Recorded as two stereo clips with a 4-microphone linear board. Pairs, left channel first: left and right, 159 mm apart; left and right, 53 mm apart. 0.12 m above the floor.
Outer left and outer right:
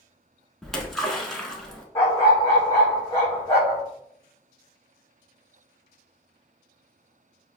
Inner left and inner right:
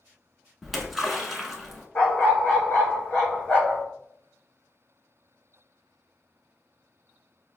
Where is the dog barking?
20° left (ahead or behind), 1.6 m.